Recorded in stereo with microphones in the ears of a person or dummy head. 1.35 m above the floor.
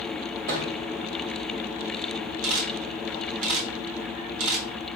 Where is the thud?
55° right (ahead or behind), 1.3 m.